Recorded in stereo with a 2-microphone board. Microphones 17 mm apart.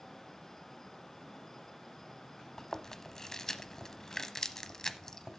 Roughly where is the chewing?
Left.